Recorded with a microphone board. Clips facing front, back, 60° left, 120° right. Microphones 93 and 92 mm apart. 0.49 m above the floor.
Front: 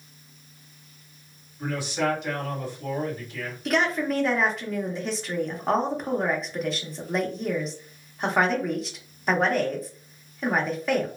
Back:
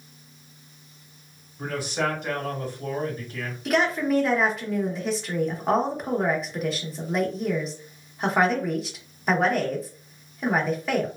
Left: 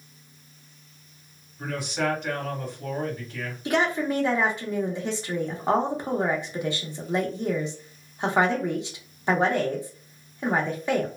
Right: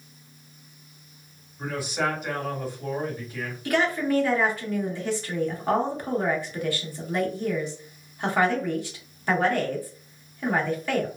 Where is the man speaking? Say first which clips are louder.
Even, even; 160° left, 1.5 m.